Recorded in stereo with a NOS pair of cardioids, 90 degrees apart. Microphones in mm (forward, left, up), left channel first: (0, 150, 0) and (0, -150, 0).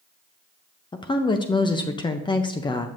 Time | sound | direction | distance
0.9 | a woman speaking | 15° left | 0.5 m